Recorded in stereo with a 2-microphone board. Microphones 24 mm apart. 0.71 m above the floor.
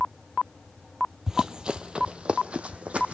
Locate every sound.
1.3 s running footsteps: 20° right (ahead or behind), 0.7 m; by 3.1 s 60° right (ahead or behind), 1.3 m